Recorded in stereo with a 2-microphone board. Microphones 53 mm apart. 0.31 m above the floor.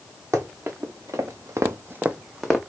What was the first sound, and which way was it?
Running footsteps, 60° right (ahead or behind).